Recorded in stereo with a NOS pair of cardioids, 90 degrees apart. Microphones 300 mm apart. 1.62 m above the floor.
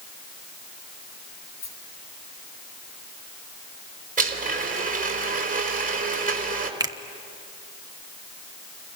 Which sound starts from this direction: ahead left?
A rattle, at 1.6 s.